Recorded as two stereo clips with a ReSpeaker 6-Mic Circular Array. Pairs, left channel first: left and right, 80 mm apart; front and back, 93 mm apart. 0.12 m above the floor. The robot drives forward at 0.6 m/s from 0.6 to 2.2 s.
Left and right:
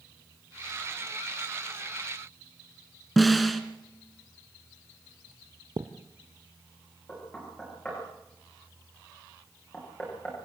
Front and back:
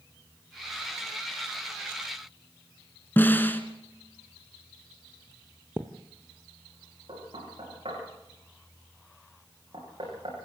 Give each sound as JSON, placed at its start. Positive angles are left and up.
{"t": 3.2, "sound": "a snare drum", "azimuth_deg": 0, "distance_m": 1.5}
{"t": 5.8, "sound": "a thud", "azimuth_deg": -115, "distance_m": 1.6}
{"t": 7.1, "sound": "knocking", "azimuth_deg": 165, "distance_m": 10.0}